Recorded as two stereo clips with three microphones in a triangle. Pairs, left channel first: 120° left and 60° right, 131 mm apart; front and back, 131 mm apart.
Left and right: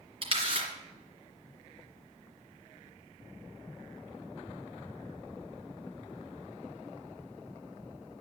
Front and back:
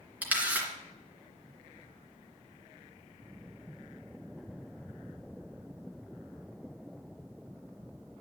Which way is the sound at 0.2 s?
105° right.